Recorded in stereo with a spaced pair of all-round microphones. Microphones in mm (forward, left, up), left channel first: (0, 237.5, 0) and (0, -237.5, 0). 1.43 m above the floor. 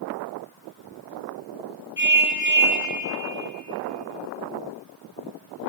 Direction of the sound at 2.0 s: 20° right (ahead or behind).